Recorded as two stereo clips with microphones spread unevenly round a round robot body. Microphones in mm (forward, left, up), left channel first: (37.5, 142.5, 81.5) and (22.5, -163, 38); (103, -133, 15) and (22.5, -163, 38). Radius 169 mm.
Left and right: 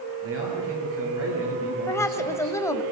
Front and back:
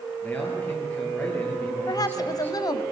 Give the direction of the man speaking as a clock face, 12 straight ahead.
2 o'clock.